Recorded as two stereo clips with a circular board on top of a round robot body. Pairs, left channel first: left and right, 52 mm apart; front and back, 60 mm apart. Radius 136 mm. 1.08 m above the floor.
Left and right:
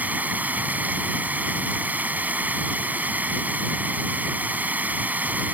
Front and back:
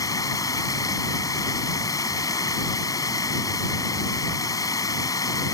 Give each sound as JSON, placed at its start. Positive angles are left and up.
{"t": 0.0, "sound": "running water", "azimuth_deg": -30}